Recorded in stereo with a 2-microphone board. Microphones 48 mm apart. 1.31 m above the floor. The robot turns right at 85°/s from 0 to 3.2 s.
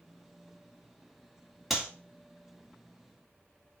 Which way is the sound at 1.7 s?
5° right (ahead or behind).